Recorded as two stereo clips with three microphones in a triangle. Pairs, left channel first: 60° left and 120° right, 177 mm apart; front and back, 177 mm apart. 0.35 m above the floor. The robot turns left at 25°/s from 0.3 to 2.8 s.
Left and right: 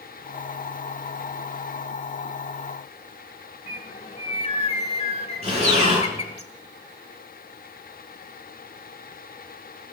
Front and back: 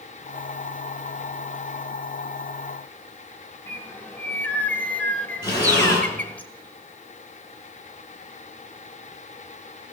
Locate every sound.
3.7 s a bird: 75° left, 1.3 m
5.4 s breathing: 65° right, 8.5 m